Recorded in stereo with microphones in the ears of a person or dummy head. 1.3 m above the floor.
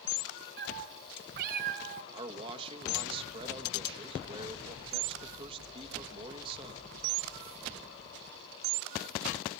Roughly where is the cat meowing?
Right.